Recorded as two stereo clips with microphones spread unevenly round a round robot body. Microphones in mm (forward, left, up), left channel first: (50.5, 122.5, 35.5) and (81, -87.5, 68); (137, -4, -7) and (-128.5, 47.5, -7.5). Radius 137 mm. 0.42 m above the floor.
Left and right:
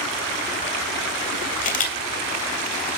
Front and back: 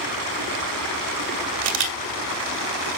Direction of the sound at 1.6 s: 145° left.